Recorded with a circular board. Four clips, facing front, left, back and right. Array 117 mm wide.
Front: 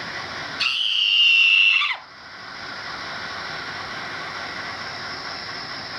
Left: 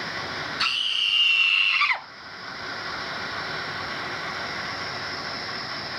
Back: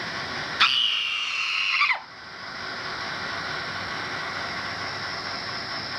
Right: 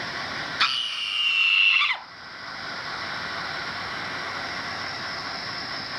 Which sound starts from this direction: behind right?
A scream, at 0.6 s.